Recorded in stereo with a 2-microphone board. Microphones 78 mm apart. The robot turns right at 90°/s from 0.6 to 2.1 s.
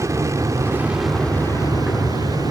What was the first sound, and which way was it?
An aircraft, 45° right.